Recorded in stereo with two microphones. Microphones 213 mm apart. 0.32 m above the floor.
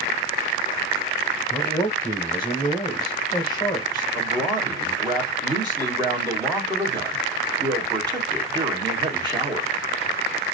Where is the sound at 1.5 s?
20° left (ahead or behind), 1.1 m.